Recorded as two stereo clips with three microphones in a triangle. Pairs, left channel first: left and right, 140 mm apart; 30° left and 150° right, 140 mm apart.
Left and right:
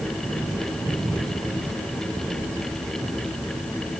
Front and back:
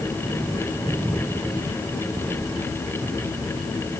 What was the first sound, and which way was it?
Only background noise.